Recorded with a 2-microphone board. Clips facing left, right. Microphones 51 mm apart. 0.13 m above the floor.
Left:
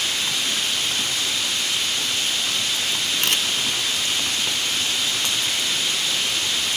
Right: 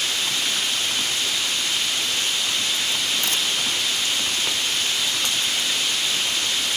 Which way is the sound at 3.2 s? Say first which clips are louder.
Left 2 dB; 65° left (ahead or behind).